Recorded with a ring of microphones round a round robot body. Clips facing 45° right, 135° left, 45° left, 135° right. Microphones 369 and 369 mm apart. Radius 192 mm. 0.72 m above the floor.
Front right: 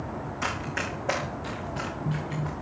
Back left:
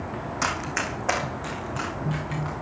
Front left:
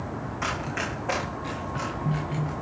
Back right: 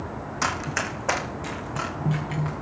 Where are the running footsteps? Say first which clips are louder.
Back left 2 dB, back right 1 dB; 165° right, 2.5 m; by 2.5 s 155° right, 4.5 m.